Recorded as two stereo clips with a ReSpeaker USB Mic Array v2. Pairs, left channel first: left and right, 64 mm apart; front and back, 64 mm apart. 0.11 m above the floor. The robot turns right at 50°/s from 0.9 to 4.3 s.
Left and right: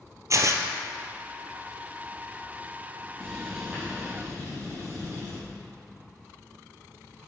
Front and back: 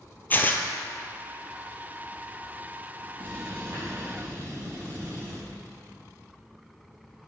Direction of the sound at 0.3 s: 60° right.